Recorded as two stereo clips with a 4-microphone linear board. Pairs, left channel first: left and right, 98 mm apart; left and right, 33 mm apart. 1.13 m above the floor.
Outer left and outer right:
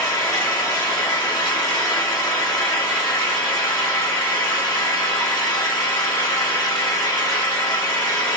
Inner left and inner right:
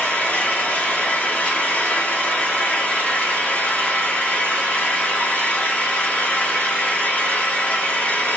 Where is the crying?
No crying in this recording.